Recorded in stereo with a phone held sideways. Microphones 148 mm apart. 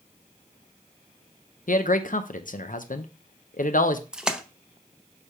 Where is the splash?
5° right (ahead or behind), 0.5 m.